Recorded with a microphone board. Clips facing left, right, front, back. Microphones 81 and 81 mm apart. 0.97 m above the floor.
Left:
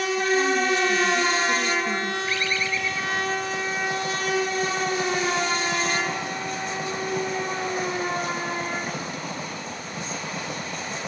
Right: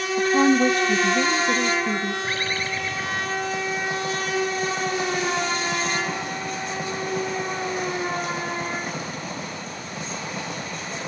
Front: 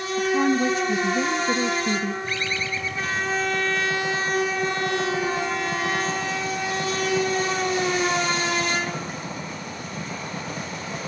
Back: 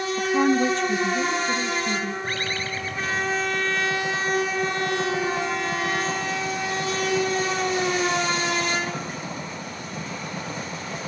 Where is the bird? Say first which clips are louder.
Even, front 1 dB; 140° right, 2.5 m.